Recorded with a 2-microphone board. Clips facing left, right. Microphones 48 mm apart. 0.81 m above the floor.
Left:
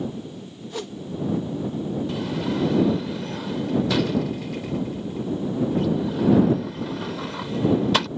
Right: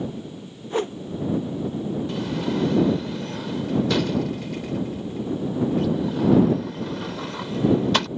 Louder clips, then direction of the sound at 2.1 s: Even; centre (ahead or behind).